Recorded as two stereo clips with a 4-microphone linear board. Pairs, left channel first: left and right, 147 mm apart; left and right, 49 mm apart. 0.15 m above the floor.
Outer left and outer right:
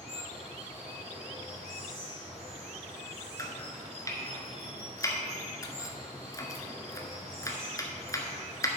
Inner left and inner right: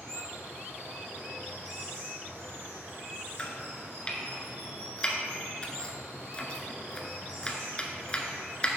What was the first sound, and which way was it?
Running water, 50° right (ahead or behind).